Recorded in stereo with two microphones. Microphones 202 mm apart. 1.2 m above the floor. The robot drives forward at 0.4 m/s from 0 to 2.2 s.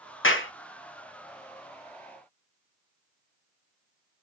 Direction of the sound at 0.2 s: 80° left.